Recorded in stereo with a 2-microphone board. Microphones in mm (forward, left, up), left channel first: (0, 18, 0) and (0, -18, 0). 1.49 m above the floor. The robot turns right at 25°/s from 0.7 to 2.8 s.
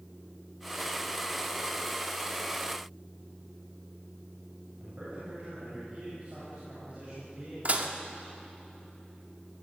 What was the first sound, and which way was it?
A man speaking, 40° right (ahead or behind).